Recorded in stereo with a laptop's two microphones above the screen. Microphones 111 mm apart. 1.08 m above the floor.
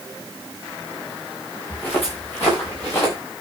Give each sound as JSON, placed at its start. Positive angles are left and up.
{"t": 1.7, "sound": "footsteps", "side_deg": 20, "distance_m": 7.0}